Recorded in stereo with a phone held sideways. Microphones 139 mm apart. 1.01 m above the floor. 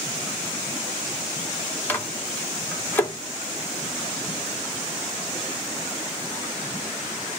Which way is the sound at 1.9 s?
15° left (ahead or behind).